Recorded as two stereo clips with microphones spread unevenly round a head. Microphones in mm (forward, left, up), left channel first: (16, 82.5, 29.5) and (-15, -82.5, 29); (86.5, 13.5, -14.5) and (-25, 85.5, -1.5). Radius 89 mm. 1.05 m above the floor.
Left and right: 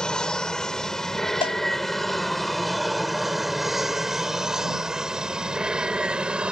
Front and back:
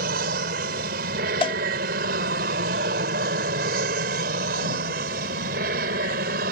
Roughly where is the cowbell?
Ahead.